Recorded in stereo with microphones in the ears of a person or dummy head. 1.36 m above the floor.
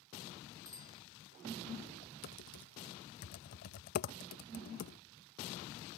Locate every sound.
0.7 s a bicycle bell: 20° right (ahead or behind)
2.2 s typing on a keyboard: 50° left (ahead or behind)